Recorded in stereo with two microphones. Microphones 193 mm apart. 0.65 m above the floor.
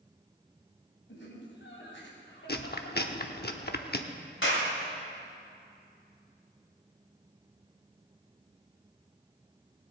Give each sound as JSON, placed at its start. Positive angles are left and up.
{"t": 1.1, "sound": "laughter", "side_deg": 75, "distance_m": 3.5}
{"t": 2.5, "sound": "chewing", "side_deg": 55, "distance_m": 0.9}
{"t": 4.4, "sound": "a clap", "side_deg": 80, "distance_m": 3.0}